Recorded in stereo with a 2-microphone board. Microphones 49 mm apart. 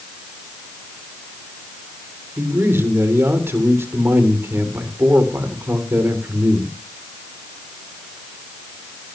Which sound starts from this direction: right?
A man speaking, at 2.4 s.